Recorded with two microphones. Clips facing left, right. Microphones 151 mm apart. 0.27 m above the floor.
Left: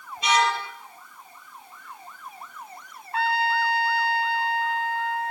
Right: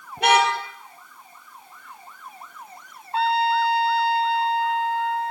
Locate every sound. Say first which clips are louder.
0.2 s a car horn: right 4 dB; 55° right (ahead or behind), 3 m
3.1 s a trumpet: right 4 dB; 25° right (ahead or behind), 1.5 m